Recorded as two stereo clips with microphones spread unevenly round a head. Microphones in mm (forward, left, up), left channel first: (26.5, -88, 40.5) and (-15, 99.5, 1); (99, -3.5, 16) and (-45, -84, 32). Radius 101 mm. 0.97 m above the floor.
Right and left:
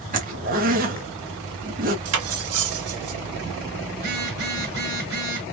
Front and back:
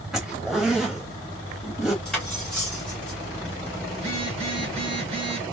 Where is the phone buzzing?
150° left, 1.7 m.